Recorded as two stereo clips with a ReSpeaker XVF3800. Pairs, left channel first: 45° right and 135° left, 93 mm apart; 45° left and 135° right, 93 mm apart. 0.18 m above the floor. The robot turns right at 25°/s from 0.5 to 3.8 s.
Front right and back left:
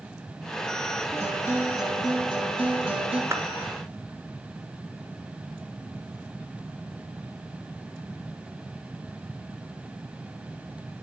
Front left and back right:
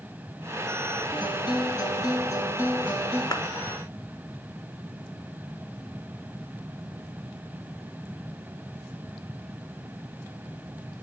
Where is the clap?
80° left, 1.9 m; by 3.4 s 85° left, 1.9 m.